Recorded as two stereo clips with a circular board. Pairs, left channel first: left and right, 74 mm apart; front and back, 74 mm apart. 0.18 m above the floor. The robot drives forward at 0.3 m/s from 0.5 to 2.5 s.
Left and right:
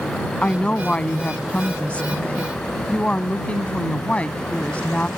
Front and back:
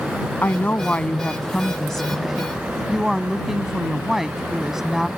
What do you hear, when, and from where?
0.4 s a woman speaking: 30° left; by 5.1 s 105° left